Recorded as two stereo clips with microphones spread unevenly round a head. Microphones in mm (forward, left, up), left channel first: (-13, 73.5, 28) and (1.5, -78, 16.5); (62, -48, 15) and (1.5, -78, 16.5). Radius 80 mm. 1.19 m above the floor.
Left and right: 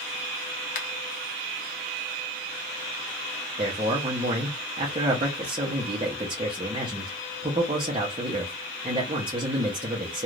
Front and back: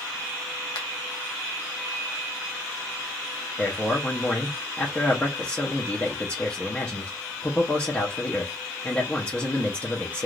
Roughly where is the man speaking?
Ahead right.